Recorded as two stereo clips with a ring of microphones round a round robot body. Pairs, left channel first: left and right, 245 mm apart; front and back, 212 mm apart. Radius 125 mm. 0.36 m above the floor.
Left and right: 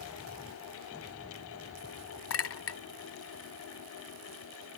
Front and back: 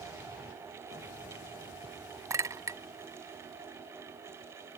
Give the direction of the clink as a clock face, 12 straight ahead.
8 o'clock.